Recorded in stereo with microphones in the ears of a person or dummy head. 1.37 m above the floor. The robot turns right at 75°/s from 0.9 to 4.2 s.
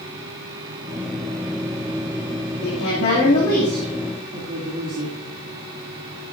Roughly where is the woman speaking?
Left.